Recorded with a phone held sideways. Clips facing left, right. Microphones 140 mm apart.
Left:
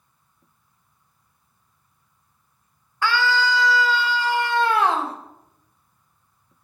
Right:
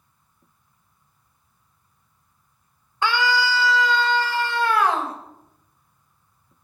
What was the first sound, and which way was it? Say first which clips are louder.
A scream: even; 20° right (ahead or behind).